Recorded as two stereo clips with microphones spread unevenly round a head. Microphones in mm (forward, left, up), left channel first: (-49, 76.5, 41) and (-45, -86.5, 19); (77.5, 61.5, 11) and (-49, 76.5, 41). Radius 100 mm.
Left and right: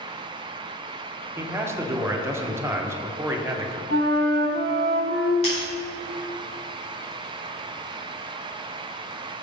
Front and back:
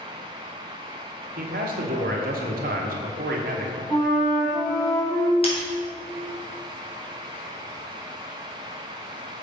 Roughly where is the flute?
Right.